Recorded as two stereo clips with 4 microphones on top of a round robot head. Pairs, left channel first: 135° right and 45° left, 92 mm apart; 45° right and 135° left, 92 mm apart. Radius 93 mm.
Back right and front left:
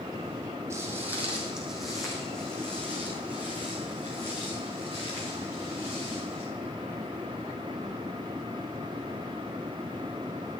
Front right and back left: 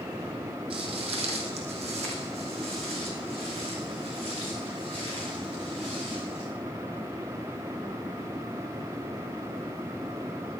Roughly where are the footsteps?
Left.